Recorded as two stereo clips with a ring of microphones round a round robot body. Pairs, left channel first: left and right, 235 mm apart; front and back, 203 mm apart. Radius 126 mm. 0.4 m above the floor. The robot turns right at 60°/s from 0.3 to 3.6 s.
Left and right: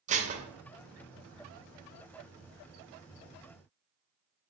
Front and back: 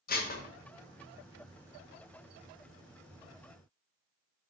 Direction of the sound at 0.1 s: 35° right.